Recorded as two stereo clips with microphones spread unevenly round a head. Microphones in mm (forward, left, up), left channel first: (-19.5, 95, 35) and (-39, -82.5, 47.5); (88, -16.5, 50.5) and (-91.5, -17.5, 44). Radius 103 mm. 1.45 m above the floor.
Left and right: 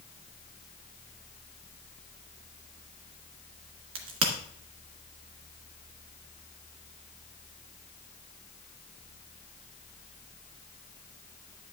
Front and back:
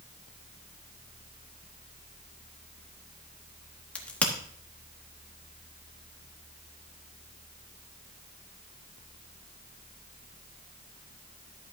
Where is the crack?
80° right, 1.2 m.